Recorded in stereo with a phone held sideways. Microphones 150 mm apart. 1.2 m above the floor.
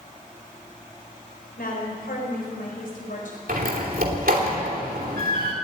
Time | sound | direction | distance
1.6 | a woman speaking | 85° left | 4 m
3.5 | a door slam | 75° right (ahead or behind) | 3 m